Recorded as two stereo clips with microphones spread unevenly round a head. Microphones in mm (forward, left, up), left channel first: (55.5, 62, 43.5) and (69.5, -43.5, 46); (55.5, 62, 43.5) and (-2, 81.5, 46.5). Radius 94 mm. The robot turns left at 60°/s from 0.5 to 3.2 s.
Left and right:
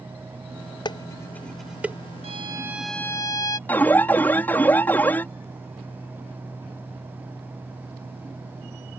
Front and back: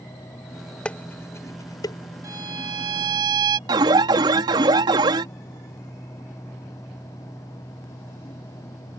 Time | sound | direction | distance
0.8 | dishes clattering | 55° left | ?
2.2 | a violin | 135° right | ?
3.7 | an alarm | straight behind | ?